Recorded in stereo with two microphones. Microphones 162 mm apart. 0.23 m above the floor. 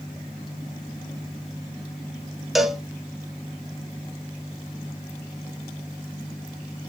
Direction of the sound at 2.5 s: Centre (ahead or behind).